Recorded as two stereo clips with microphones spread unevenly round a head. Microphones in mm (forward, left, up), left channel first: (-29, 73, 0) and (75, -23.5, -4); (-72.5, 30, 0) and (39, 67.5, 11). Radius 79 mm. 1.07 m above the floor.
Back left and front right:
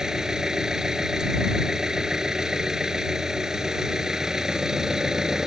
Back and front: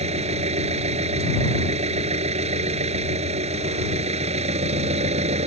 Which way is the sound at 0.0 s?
45° left.